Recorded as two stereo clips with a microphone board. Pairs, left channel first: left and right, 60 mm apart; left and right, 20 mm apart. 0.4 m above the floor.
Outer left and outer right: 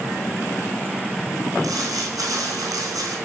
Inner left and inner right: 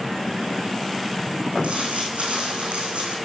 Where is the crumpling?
85° right, 3 m.